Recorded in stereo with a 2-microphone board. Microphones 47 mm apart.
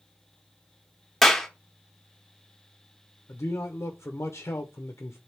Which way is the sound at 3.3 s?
80° left.